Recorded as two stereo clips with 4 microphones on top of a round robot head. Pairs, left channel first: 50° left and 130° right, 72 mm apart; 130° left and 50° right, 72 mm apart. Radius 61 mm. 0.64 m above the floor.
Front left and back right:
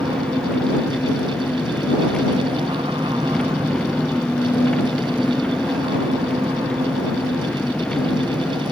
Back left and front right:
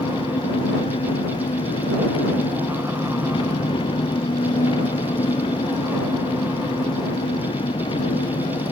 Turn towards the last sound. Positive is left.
turn(degrees=130)